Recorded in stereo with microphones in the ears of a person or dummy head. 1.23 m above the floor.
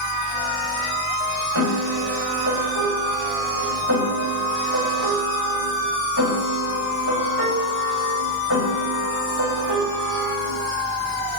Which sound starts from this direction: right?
A piano, at 1.6 s.